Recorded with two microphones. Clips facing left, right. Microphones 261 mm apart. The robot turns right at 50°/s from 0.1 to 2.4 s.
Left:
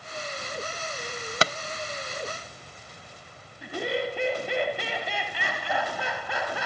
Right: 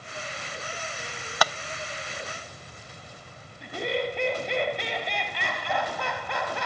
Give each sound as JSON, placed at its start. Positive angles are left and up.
{"t": 1.4, "sound": "tapping", "side_deg": 25, "distance_m": 0.6}
{"t": 3.6, "sound": "laughter", "side_deg": 5, "distance_m": 2.0}